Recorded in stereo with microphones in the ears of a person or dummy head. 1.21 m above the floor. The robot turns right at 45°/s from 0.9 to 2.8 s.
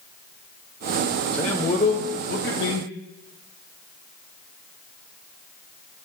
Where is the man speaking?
10° left, 0.9 m; by 2.9 s 75° left, 0.9 m.